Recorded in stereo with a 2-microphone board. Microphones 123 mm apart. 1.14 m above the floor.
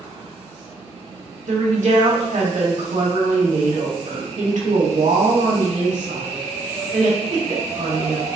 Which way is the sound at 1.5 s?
75° right (ahead or behind).